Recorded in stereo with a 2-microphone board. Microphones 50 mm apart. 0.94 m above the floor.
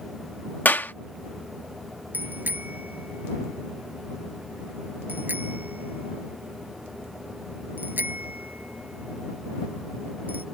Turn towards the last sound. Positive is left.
turn(degrees=-35)  # may be behind; listen again after turning